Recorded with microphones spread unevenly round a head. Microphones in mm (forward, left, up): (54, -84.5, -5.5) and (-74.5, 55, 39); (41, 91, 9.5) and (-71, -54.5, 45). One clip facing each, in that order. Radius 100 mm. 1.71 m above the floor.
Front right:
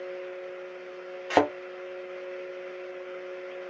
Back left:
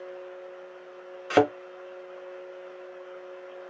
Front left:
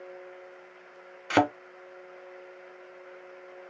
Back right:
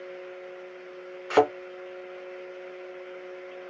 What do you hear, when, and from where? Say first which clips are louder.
1.3 s a thud: back left 2 dB, back right 3 dB; 85° left, 1.2 m